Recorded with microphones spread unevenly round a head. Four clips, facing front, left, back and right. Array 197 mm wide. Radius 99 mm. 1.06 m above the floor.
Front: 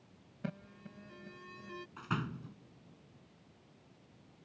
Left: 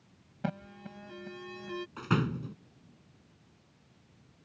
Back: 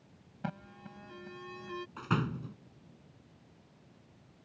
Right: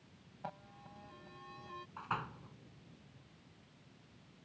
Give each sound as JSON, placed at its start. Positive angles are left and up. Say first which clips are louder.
{"t": 0.4, "sound": "an alarm", "louder": "left 10 dB, back 3 dB", "azimuth_deg": 75}
{"t": 2.0, "sound": "a door slam", "louder": "left 10 dB, back 5 dB", "azimuth_deg": 100}